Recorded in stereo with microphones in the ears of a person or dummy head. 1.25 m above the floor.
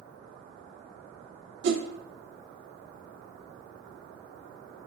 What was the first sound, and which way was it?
A whoosh, 65° right (ahead or behind).